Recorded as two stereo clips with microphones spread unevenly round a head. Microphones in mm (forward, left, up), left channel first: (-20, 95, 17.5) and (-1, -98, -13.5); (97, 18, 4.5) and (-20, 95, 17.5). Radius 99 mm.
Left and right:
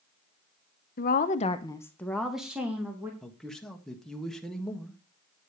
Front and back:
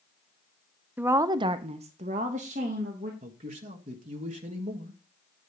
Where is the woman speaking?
70° left, 0.7 m; by 3.1 s 160° right, 1.9 m.